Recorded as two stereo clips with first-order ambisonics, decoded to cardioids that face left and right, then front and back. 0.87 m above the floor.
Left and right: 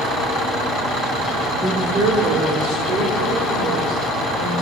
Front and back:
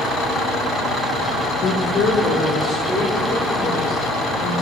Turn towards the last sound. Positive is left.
turn(degrees=-95)